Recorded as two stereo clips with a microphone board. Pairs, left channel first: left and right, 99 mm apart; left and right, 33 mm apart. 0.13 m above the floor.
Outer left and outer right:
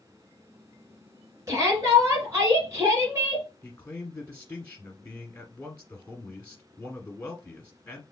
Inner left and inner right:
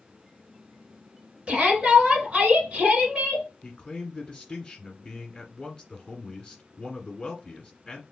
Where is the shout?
35° right (ahead or behind), 1.3 m.